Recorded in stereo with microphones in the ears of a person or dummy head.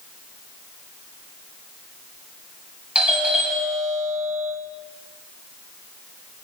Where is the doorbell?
5° right (ahead or behind), 1.9 m.